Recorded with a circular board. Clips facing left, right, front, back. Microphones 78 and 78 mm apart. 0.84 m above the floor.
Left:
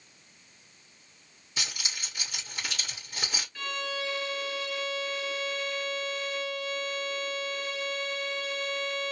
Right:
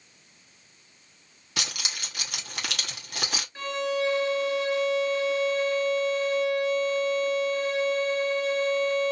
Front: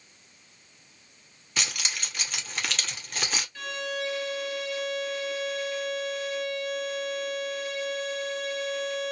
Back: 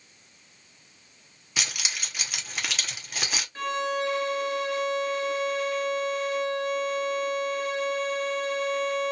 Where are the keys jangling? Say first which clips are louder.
Right 3 dB, even; 95° right, 1.1 m.